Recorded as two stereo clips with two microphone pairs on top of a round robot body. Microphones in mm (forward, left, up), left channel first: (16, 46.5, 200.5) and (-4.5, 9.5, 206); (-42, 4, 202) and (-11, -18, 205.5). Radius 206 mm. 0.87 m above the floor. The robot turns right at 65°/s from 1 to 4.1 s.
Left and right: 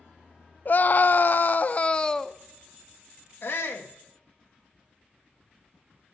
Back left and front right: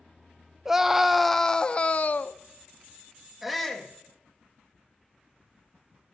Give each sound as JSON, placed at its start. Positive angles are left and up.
{"t": 0.7, "sound": "a scream", "azimuth_deg": 50, "distance_m": 0.7}
{"t": 3.4, "sound": "a shout", "azimuth_deg": 50, "distance_m": 1.9}